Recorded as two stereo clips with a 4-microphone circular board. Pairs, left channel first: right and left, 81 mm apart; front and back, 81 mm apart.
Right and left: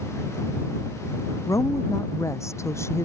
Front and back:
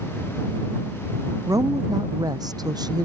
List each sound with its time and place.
1.5 s a woman speaking: 140° right; by 3.1 s 150° right